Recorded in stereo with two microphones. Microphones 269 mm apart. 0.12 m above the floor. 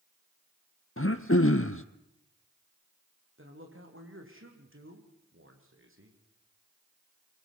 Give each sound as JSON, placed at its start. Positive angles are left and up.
{"t": 1.0, "sound": "throat clearing", "side_deg": 50, "distance_m": 1.2}
{"t": 3.4, "sound": "a man speaking", "side_deg": -50, "distance_m": 5.0}